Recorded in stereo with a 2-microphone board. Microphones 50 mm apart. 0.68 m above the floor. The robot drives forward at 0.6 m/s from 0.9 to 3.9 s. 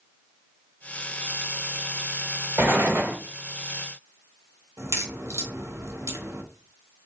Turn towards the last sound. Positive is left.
turn(degrees=-80)